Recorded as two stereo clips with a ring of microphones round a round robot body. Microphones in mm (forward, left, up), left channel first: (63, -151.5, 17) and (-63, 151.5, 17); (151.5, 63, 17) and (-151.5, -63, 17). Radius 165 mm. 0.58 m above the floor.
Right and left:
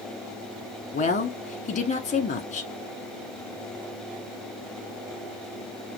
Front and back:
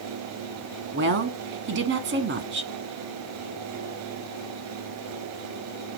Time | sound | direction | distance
0.9 | a woman speaking | 125° right | 1.1 m